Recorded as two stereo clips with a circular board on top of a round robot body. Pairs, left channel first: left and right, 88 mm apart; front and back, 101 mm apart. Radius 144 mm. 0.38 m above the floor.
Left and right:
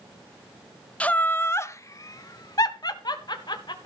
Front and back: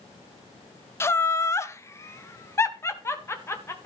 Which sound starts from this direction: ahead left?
Laughter, at 1.0 s.